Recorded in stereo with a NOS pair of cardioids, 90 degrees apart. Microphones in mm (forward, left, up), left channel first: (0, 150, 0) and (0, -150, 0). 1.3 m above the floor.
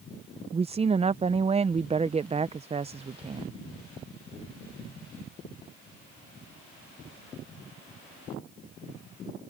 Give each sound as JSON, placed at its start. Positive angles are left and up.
{"t": 0.5, "sound": "a woman speaking", "azimuth_deg": -20}